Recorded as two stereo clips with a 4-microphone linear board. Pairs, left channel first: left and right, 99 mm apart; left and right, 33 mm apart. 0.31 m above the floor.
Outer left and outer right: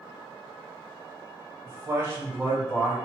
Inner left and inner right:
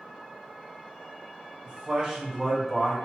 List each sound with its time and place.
1.6 s a man speaking: 35° right (ahead or behind), 1.6 m; by 3.0 s centre (ahead or behind), 1.6 m